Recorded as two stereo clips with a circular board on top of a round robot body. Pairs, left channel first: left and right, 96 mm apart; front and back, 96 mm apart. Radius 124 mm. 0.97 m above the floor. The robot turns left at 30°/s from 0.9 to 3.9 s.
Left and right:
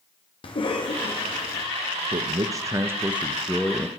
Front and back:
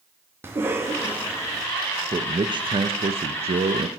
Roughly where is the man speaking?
Behind right.